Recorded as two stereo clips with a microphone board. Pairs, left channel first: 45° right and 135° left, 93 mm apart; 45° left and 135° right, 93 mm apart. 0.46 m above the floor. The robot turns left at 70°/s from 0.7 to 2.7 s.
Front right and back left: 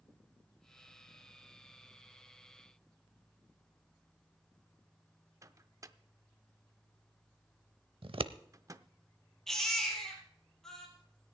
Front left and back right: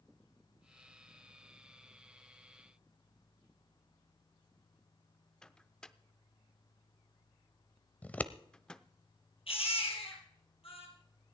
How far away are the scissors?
About 0.7 m.